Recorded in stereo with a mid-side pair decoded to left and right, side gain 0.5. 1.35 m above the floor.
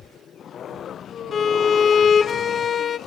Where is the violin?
45° left, 0.9 m.